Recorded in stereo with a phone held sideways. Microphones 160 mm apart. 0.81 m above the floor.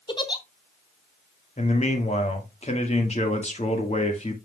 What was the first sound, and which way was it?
A giggle, 30° left (ahead or behind).